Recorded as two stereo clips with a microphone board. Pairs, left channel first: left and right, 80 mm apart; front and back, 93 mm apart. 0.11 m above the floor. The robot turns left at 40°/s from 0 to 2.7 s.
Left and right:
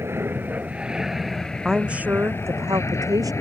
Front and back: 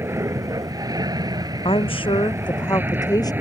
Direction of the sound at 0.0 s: 130° right.